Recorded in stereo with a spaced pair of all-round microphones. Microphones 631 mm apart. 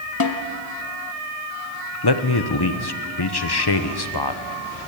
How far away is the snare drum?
About 1.3 m.